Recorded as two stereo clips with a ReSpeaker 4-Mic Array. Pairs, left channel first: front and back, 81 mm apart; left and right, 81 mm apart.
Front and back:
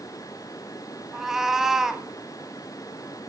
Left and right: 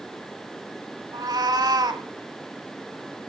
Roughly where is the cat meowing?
Right.